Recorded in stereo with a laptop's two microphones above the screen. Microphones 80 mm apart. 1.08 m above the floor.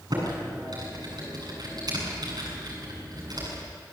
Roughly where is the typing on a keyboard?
Right.